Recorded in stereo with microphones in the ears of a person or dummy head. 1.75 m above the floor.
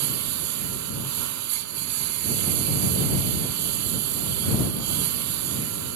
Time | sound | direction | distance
0.0 | a lawn mower | 85° right | ?